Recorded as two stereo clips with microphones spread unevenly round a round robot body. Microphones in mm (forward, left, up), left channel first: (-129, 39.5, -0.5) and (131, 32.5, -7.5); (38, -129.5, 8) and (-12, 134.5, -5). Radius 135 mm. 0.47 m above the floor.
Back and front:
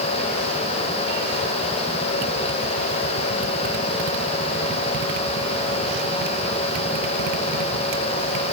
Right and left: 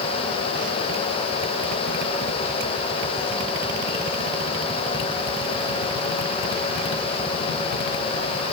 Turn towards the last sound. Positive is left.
No sound to turn to.